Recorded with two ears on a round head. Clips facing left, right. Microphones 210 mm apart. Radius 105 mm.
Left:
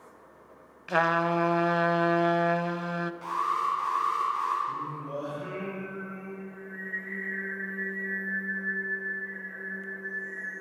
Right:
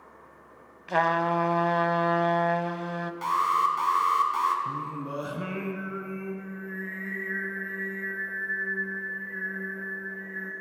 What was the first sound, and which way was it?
A trumpet, 10° left (ahead or behind).